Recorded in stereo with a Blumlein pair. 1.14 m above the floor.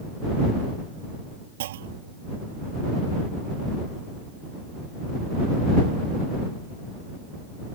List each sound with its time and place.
1.6 s a clunk: 55° right